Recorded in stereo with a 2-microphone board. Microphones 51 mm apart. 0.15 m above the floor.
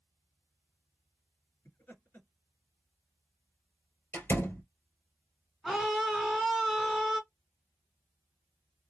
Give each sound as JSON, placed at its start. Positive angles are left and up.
{"t": 1.6, "sound": "laughter", "side_deg": 40, "distance_m": 2.0}
{"t": 4.1, "sound": "a door slam", "side_deg": 45, "distance_m": 1.8}
{"t": 5.6, "sound": "a scream", "side_deg": -5, "distance_m": 1.4}